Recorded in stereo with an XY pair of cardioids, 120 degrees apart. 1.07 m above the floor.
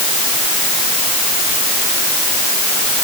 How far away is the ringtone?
I don't hear a ringtone.